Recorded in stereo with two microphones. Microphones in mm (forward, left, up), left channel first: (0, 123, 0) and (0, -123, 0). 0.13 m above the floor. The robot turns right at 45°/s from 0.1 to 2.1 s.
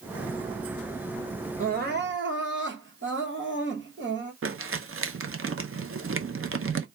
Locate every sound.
1.6 s crying: 30° right (ahead or behind), 1.0 m; by 4.3 s 50° right (ahead or behind), 1.0 m
4.4 s crumpling: 60° right (ahead or behind), 0.5 m